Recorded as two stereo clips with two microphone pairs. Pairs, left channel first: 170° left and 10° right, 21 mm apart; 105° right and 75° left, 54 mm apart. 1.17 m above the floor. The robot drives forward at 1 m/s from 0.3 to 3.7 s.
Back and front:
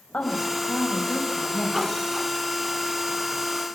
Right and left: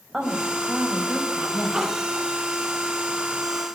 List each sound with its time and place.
0.1 s a woman speaking: 155° left, 5 m; by 1.8 s 160° left, 6.5 m